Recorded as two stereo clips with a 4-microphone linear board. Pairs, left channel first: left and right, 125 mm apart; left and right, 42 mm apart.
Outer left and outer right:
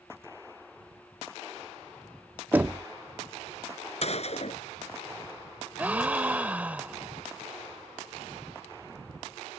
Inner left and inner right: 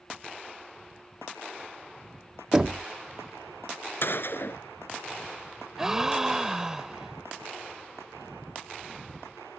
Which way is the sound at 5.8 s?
15° right (ahead or behind).